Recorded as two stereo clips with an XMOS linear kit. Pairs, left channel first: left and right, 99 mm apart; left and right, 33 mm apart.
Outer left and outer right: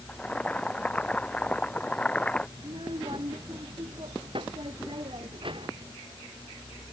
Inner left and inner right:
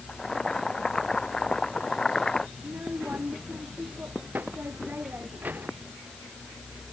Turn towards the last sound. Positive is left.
turn(degrees=-65)  # may be behind; listen again after turning